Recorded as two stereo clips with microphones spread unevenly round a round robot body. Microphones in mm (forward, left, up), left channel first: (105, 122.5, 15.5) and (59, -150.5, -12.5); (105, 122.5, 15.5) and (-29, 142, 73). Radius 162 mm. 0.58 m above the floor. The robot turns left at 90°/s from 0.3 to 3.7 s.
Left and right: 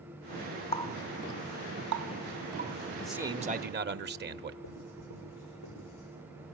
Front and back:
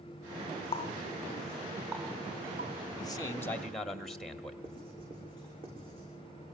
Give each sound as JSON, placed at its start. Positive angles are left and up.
{"t": 0.7, "sound": "a running tap", "azimuth_deg": 10, "distance_m": 1.1}
{"t": 2.9, "sound": "a man speaking", "azimuth_deg": 0, "distance_m": 0.9}
{"t": 4.6, "sound": "writing", "azimuth_deg": 125, "distance_m": 10.0}